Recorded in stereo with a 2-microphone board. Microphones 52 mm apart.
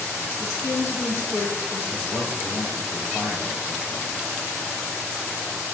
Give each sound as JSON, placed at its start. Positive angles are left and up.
{"t": 0.4, "sound": "a woman speaking", "side_deg": 45, "distance_m": 7.0}
{"t": 1.9, "sound": "a man speaking", "side_deg": 70, "distance_m": 9.0}